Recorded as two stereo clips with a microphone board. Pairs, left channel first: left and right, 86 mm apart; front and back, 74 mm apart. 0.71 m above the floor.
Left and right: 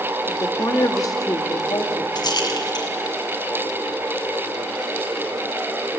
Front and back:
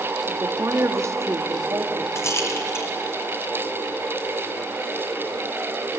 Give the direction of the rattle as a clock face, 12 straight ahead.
10 o'clock.